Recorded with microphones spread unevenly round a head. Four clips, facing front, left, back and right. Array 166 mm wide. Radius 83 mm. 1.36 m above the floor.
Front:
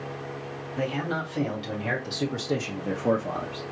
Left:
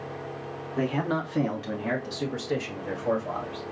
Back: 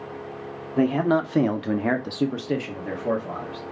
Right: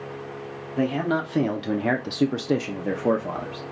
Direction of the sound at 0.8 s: 170° right.